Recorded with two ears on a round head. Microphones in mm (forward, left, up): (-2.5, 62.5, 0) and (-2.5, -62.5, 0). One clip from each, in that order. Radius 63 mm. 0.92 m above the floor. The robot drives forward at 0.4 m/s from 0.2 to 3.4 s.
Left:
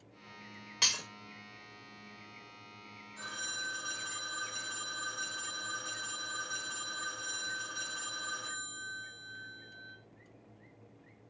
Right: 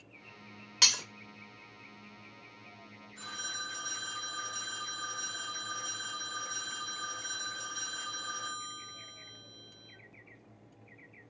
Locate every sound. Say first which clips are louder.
0.8 s breaking glass: right 5 dB; 35° right (ahead or behind), 0.7 m; by 1.0 s 30° right (ahead or behind), 0.7 m
3.2 s a phone ringing: even; centre (ahead or behind), 2 m